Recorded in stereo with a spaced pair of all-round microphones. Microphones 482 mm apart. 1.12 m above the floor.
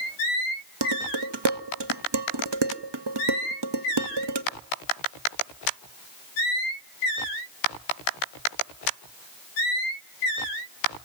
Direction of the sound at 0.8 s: 55° right (ahead or behind).